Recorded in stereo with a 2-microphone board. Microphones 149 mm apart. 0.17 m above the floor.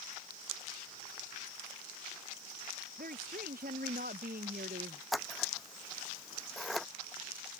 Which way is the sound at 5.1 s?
Centre (ahead or behind).